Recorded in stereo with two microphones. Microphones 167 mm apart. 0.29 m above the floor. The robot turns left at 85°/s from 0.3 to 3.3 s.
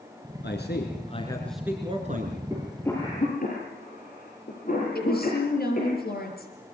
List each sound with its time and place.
0.4 s a man speaking: 95° left, 3.5 m; by 2.4 s 70° right, 3.5 m
2.5 s a cough: 15° right (ahead or behind), 6 m; by 6.0 s 50° left (ahead or behind), 6 m
5.0 s a woman speaking: 60° left (ahead or behind), 6 m